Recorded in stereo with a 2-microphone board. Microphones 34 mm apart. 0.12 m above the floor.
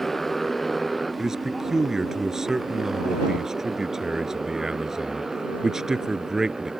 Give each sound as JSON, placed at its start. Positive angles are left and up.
{"t": 0.0, "sound": "a motorcycle", "side_deg": 10}
{"t": 1.2, "sound": "a man speaking", "side_deg": -15}